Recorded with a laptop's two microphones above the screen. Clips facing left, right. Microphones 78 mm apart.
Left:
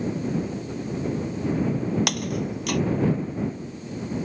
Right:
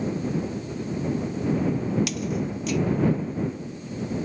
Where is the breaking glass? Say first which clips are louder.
Even; 60° left (ahead or behind).